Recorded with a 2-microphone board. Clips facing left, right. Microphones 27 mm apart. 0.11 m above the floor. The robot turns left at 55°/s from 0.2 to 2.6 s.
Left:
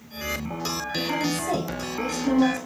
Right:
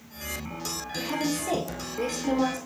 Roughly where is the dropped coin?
I don't hear a dropped coin.